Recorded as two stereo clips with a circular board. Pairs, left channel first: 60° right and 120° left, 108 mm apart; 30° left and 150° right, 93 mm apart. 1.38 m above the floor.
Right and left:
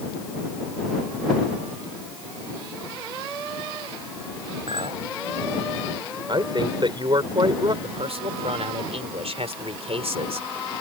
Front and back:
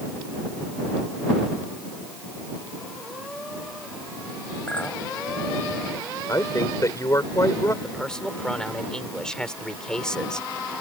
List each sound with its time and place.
4.7 s a clink: 105° left
6.3 s a woman speaking: 80° left
7.8 s a man speaking: 110° left